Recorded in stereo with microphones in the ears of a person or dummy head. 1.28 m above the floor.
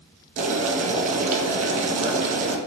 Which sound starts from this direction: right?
Boiling, at 0.4 s.